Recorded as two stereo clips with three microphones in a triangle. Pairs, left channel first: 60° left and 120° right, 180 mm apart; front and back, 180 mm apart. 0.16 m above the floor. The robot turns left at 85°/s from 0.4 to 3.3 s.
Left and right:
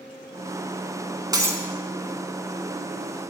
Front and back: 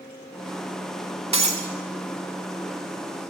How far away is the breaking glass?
About 0.5 m.